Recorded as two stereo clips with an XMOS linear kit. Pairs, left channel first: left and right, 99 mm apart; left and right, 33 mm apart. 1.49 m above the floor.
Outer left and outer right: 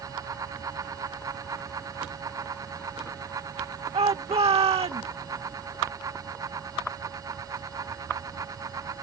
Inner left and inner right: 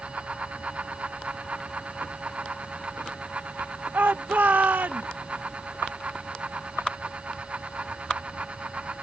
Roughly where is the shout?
Right.